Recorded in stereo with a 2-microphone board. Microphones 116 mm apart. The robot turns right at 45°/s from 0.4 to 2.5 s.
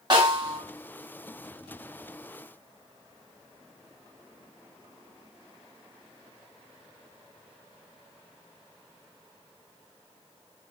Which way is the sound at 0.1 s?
40° right (ahead or behind).